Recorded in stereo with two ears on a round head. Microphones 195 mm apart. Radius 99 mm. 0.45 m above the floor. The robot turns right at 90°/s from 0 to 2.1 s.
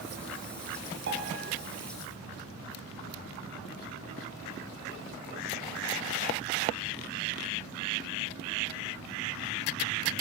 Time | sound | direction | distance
1.1 | a piano | 55° right | 4 m